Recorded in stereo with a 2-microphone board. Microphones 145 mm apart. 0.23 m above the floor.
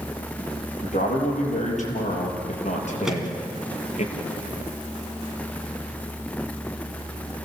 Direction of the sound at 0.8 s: 55° left (ahead or behind).